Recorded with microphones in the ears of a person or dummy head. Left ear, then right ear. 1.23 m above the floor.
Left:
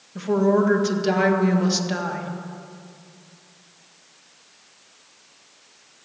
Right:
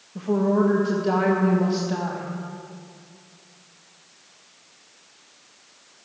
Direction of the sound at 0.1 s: 40° left (ahead or behind).